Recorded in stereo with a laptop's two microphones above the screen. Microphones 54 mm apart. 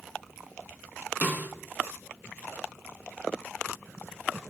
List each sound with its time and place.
1.2 s a snare drum: 30° right (ahead or behind), 0.5 m